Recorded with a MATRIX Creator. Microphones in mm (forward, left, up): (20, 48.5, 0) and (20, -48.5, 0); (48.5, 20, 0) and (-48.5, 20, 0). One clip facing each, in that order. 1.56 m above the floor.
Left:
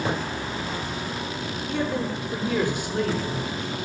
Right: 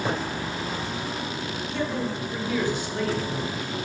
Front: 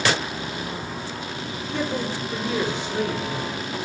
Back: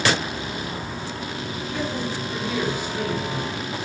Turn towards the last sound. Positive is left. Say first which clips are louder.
# left 2 dB, front 2 dB
turn(degrees=60)